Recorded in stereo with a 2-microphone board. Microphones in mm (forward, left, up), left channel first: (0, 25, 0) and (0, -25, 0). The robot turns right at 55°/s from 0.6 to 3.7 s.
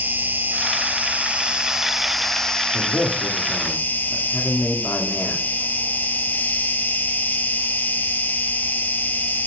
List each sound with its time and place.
0.0 s an insect: 85° right, 1.2 m; by 9.5 s 85° left, 1.2 m
2.7 s a man speaking: 85° left, 2.5 m; by 5.4 s 140° left, 2.5 m